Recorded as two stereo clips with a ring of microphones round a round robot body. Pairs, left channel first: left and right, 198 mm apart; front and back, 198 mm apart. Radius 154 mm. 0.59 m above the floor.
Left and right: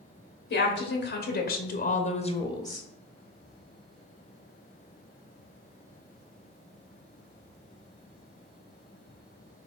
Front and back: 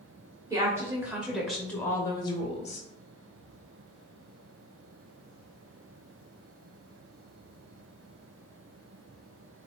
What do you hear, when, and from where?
0.5 s a woman speaking: 105° left, 1.3 m; by 2.9 s 15° left, 0.8 m